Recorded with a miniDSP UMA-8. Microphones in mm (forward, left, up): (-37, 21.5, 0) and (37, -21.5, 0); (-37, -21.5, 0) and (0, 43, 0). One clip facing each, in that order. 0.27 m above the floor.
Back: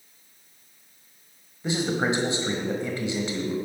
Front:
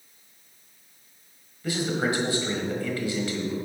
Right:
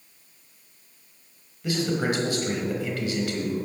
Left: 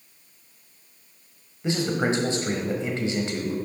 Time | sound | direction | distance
1.6 | a man speaking | 100° left | 1.2 m